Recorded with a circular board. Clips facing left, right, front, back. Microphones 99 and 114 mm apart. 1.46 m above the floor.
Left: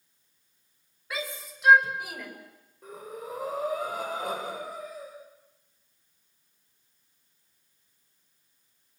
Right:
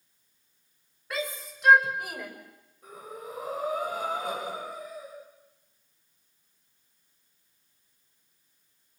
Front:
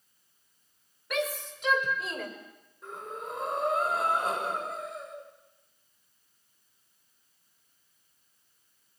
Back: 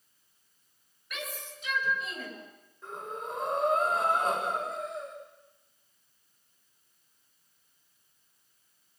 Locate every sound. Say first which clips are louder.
1.1 s a shout: right 2 dB, front 10 dB; 5° left, 6 m; by 2.3 s straight ahead, 5 m
2.8 s breathing: left 2 dB, back 1 dB; 85° left, 6 m